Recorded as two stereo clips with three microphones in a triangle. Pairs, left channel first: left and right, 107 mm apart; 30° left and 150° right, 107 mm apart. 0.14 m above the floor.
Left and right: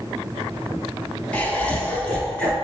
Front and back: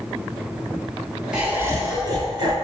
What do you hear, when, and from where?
1.3 s laughter: 140° left, 1.1 m; by 2.5 s 165° left, 2 m